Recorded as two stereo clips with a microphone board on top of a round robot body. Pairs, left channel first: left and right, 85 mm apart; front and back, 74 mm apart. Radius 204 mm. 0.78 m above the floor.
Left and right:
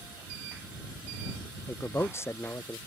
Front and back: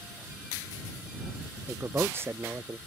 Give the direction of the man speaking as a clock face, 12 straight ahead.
7 o'clock.